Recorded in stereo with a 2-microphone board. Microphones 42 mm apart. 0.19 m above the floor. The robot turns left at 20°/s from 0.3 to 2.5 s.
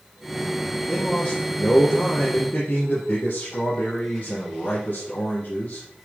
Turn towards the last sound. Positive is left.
turn(degrees=130)